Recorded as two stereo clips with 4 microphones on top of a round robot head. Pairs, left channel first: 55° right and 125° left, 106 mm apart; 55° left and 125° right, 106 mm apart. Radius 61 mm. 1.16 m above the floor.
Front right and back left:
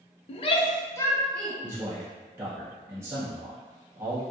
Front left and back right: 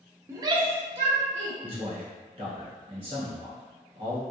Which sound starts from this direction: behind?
A man speaking, at 1.6 s.